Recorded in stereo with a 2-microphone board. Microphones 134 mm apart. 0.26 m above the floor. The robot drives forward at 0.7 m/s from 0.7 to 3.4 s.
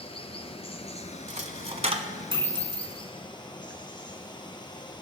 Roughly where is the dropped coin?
Right.